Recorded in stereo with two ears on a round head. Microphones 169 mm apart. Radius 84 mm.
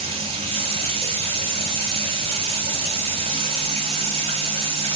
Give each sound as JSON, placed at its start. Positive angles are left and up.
{"t": 0.0, "sound": "running water", "side_deg": -30, "distance_m": 1.0}